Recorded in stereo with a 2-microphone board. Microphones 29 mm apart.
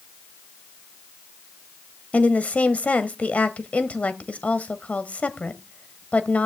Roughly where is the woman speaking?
Left.